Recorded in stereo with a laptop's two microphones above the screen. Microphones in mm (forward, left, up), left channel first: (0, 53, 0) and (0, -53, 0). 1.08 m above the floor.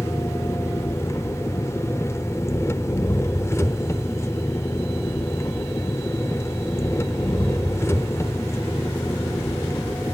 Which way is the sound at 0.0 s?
25° left (ahead or behind).